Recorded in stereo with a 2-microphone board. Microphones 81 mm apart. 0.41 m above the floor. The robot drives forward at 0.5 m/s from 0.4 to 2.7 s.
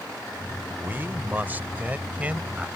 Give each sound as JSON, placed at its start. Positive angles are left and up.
{"t": 0.8, "sound": "a man speaking", "side_deg": -25}